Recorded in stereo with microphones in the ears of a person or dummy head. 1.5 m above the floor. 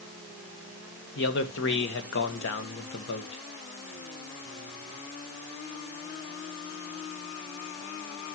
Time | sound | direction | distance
1.1 | a man speaking | 60° left (ahead or behind) | 1.9 m